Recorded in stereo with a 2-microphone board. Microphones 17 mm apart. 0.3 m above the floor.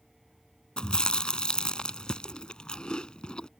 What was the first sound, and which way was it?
Chewing, 80° left.